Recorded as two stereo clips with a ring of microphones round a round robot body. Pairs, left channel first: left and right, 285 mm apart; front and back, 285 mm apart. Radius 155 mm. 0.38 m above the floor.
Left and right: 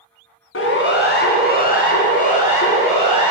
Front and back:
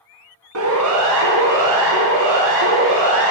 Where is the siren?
135° left, 3 m; by 3.3 s 160° left, 5 m.